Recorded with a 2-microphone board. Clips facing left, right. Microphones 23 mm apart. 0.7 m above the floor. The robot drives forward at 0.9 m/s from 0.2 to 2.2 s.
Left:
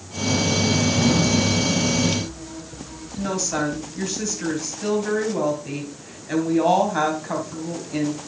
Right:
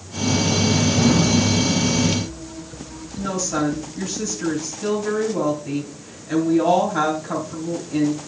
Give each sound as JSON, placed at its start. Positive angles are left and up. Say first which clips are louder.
{"t": 3.2, "sound": "a woman speaking", "louder": "right 1 dB", "side_deg": 15, "distance_m": 3.5}